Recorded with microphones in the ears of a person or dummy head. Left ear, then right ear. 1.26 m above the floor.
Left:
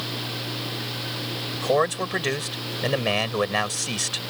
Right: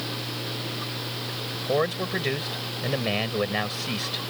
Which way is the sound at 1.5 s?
35° left (ahead or behind).